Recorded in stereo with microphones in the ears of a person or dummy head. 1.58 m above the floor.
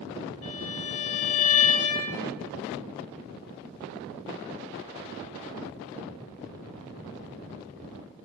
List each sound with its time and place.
0.4 s a violin: 40° left (ahead or behind), 1.9 m